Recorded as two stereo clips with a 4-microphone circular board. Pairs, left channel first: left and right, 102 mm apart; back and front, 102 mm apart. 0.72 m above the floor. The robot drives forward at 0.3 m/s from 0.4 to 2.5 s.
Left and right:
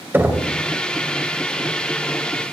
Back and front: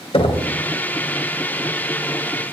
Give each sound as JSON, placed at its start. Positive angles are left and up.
{"t": 0.1, "sound": "knocking", "azimuth_deg": -160, "distance_m": 2.0}